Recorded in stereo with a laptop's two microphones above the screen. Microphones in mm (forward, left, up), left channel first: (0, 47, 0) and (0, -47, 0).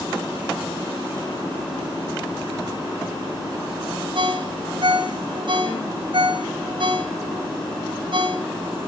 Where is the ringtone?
65° right (ahead or behind), 2 m.